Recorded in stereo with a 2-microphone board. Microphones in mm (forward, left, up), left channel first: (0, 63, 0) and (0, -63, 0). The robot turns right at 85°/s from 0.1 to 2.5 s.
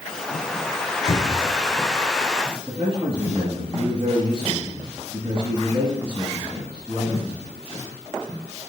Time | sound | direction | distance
1.1 | a cupboard door | 135° left | 2 m
2.7 | a man speaking | 50° right (ahead or behind) | 2.5 m